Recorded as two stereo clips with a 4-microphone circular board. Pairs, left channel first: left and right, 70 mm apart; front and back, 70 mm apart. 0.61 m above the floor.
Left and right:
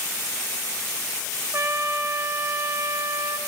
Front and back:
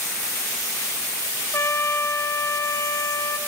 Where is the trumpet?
45° right, 2.5 m.